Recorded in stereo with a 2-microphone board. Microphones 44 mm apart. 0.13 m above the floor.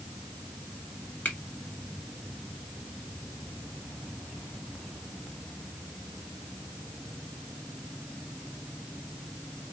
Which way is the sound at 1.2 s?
40° left (ahead or behind).